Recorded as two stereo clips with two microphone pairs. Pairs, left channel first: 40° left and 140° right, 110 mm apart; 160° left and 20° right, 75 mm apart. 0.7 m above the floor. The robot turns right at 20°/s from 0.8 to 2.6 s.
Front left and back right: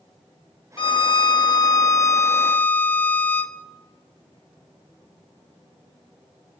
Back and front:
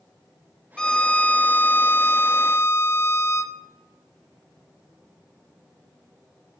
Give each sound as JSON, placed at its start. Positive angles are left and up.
{"t": 0.8, "sound": "a violin", "azimuth_deg": 80, "distance_m": 0.8}